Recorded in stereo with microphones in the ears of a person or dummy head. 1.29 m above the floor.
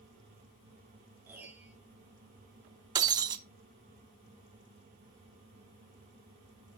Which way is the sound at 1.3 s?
10° right (ahead or behind).